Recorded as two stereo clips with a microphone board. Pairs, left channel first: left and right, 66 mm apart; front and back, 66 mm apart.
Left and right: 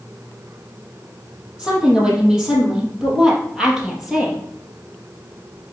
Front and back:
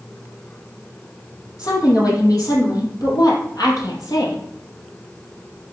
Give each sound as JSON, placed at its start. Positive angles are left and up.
{"t": 1.6, "sound": "a woman speaking", "azimuth_deg": -15, "distance_m": 5.5}